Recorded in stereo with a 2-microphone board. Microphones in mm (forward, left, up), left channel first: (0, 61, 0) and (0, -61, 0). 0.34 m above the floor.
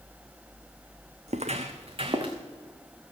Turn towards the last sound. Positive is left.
turn(degrees=-45)  # may be behind; listen again after turning